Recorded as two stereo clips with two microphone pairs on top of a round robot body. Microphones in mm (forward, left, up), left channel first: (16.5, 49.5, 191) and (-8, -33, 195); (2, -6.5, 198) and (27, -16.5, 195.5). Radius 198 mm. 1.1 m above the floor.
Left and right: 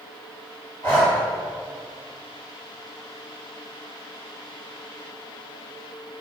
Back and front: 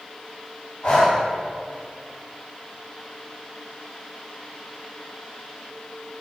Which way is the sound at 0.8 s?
135° left.